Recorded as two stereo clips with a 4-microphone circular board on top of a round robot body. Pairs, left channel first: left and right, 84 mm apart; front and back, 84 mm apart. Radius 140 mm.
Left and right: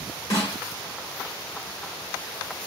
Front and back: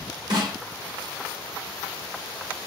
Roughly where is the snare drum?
Behind left.